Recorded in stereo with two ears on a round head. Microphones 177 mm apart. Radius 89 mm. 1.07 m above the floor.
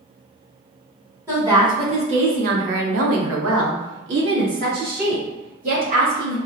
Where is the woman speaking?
15° right (ahead or behind), 1.2 m; by 6.4 s 40° right (ahead or behind), 3 m.